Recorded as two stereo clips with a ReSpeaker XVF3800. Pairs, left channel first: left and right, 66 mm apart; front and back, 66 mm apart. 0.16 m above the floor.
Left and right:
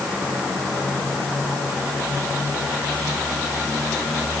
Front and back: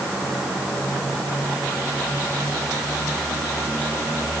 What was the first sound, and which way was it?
Only background noise.